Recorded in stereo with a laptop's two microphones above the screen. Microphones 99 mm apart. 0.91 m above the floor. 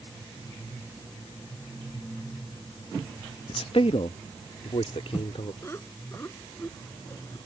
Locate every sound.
3.5 s a man speaking: 60° left (ahead or behind); by 5.5 s 80° left
5.6 s laughter: 25° left (ahead or behind)